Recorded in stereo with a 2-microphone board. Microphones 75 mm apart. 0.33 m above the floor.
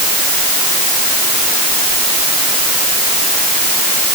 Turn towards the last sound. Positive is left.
No sound to turn to.